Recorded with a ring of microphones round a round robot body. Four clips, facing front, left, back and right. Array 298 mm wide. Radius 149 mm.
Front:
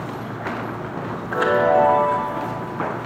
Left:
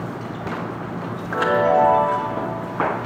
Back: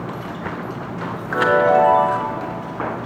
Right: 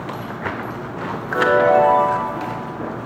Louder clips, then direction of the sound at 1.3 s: Right 3 dB, back 2 dB; 125° right.